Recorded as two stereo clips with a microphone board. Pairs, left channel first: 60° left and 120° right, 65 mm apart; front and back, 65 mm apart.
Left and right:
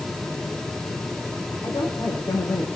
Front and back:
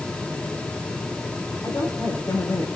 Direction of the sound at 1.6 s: 35° left.